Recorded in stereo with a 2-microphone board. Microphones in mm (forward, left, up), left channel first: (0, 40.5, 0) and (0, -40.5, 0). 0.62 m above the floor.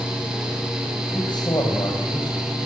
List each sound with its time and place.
1.1 s a man speaking: 65° left (ahead or behind), 4 m